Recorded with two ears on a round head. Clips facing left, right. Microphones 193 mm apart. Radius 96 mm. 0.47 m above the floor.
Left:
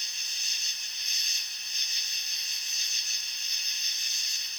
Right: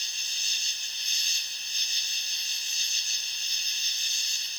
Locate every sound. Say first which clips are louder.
0.0 s an insect: right 1 dB; 30° right (ahead or behind)